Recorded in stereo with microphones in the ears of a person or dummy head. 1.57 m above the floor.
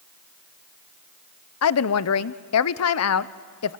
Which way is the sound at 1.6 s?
85° left.